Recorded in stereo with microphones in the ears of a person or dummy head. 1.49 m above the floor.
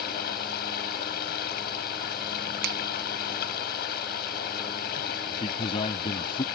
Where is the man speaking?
30° left (ahead or behind).